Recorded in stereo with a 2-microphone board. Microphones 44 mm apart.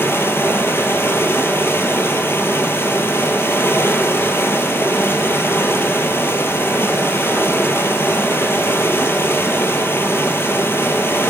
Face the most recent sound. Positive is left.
turn(degrees=65)  # may be behind; listen again after turning